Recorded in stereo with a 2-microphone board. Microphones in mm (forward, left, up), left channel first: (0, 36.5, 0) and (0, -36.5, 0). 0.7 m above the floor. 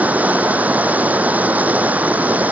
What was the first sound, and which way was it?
Running water, 20° right (ahead or behind).